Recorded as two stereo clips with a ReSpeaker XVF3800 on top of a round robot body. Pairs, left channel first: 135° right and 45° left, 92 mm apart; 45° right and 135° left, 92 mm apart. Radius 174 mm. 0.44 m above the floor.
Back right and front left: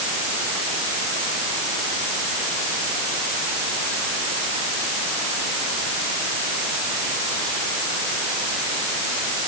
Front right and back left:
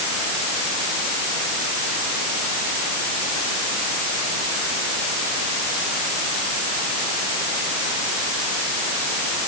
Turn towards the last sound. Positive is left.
No sound to turn to.